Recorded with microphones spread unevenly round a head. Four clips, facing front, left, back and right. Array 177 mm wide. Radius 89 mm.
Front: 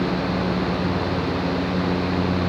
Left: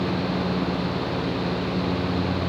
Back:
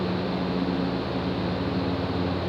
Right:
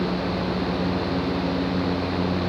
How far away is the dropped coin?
I don't hear a dropped coin.